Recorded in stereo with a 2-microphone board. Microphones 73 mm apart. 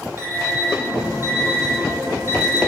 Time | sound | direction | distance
0.2 | an alarm clock | 35° right (ahead or behind) | 5 m